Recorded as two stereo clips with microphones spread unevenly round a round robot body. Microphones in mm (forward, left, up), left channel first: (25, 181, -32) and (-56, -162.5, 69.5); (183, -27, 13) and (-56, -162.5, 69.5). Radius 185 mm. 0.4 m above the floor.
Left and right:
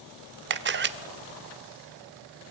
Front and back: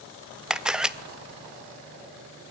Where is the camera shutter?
45° right, 0.9 m.